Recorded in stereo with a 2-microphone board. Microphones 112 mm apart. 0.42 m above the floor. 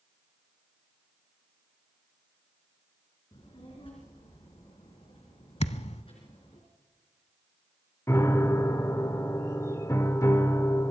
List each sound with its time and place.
3.3 s a child speaking: 55° left (ahead or behind), 3 m
5.6 s a thud: 75° left (ahead or behind), 0.7 m
8.1 s a piano: 25° left (ahead or behind), 0.8 m